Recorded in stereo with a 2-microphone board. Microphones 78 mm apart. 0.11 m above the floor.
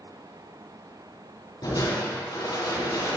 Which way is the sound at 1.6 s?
60° left (ahead or behind).